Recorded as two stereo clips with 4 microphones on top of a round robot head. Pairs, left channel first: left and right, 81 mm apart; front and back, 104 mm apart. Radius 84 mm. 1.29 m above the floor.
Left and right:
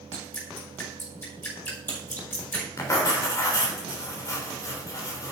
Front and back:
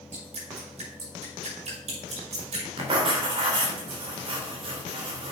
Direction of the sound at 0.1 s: 155° left.